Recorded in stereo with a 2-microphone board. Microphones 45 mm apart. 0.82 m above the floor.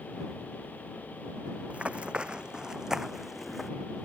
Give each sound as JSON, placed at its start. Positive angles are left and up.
{"t": 1.7, "sound": "running footsteps", "side_deg": -30}